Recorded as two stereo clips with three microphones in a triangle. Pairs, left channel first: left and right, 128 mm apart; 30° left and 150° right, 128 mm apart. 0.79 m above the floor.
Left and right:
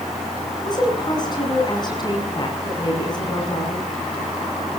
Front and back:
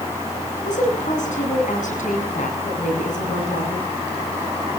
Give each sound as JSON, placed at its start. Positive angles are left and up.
{"t": 0.6, "sound": "a woman speaking", "azimuth_deg": 35, "distance_m": 8.5}